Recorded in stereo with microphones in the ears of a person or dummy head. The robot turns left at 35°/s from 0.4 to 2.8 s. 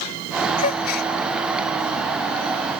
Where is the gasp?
45° left (ahead or behind); by 1.1 s 65° left (ahead or behind).